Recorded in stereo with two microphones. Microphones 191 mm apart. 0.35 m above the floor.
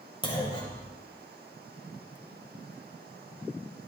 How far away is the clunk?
About 1.5 m.